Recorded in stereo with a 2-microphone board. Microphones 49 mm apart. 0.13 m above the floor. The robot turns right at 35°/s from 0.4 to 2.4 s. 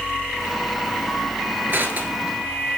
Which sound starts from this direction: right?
Crushing, at 1.7 s.